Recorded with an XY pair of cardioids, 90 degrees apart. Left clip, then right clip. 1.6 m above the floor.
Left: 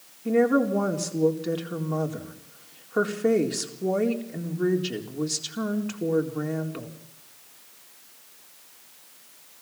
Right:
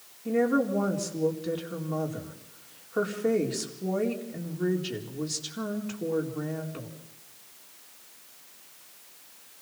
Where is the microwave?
No microwave in this recording.